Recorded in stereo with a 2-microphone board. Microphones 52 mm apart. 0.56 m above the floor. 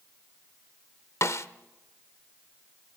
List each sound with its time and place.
1.2 s a snare drum: 70° left (ahead or behind), 0.9 m